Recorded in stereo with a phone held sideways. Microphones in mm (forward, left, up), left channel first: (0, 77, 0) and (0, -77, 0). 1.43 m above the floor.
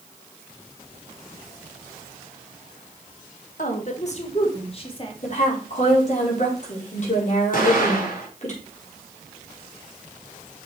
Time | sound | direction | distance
3.6 | a woman speaking | 55° left (ahead or behind) | 1.7 m
5.2 | a woman speaking | 50° left (ahead or behind) | 4.5 m
7.5 | an explosion | 65° left (ahead or behind) | 5.5 m